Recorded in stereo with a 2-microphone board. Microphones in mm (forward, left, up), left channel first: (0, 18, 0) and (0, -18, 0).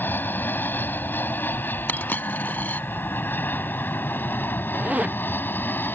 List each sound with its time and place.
0.0 s an aircraft: 65° left (ahead or behind); by 6.0 s 70° left (ahead or behind)
1.9 s a dropped coin: 60° left (ahead or behind)
4.7 s a zipper: 40° right (ahead or behind)